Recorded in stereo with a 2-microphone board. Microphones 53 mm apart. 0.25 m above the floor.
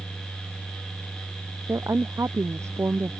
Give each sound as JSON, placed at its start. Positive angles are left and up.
{"t": 1.7, "sound": "a woman speaking", "side_deg": -60}